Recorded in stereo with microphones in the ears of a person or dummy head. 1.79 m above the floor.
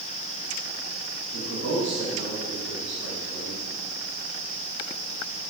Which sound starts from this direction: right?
A man speaking, at 1.3 s.